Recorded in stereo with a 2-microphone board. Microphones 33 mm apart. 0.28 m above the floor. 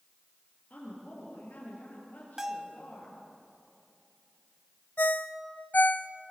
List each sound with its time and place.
0.7 s a woman speaking: 55° left (ahead or behind), 6.5 m
2.4 s a bell: 10° right (ahead or behind), 0.9 m
5.0 s a ringtone: 60° left (ahead or behind), 0.5 m